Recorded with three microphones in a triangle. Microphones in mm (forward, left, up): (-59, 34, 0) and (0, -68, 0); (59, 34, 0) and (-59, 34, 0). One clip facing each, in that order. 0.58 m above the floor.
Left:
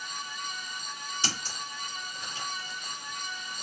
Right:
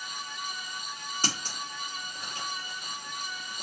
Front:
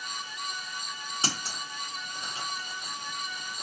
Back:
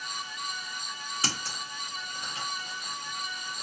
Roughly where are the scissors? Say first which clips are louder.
Right 3 dB, front 1 dB; ahead right.